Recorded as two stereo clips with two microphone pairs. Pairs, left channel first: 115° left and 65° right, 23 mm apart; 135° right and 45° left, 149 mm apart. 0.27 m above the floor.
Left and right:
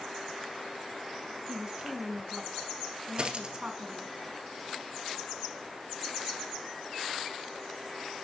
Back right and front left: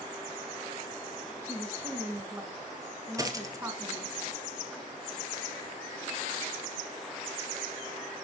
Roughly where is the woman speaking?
Ahead right.